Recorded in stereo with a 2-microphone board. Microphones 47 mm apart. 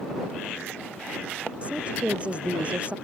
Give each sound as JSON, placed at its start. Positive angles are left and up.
{"t": 1.6, "sound": "a woman speaking", "side_deg": -25}